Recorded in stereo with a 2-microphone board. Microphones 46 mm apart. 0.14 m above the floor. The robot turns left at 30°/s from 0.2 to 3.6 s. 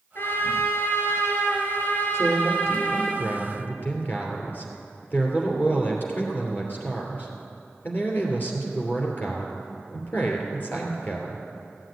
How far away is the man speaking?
About 3 m.